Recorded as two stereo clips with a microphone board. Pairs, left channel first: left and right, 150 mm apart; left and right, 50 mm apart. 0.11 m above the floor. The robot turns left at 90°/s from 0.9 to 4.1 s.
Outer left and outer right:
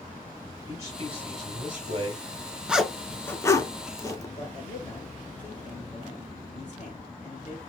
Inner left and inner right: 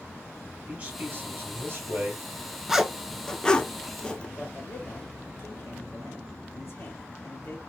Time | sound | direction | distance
0.7 | a man speaking | 30° right | 2 m
2.7 | a zipper | 5° right (ahead or behind) | 0.5 m
4.4 | a man speaking | 50° left (ahead or behind) | 1.8 m